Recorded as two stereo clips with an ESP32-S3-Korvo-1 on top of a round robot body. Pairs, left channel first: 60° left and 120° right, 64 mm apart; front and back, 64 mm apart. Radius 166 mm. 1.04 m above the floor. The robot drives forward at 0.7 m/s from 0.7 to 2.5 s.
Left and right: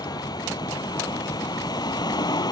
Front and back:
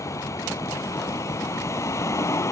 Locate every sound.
0.0 s a vehicle: 45° left